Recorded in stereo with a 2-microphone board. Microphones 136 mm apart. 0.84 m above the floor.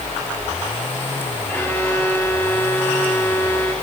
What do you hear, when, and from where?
1.5 s a violin: 15° left (ahead or behind), 6.5 m